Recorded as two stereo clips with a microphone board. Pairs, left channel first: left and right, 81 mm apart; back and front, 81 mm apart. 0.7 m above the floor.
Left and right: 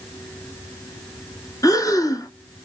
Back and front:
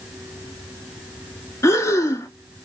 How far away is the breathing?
About 0.6 m.